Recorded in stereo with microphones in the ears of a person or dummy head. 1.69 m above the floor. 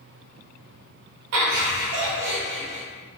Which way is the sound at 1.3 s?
70° right (ahead or behind).